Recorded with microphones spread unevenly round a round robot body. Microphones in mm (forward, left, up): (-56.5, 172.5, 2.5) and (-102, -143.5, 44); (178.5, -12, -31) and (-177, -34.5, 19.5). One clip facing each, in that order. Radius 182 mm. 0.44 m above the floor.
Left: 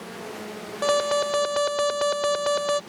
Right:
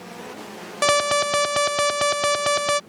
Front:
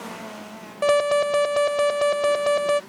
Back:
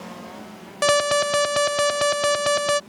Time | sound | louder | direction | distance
0.8 | an alarm | right 1 dB, front 2 dB | 130° right | ?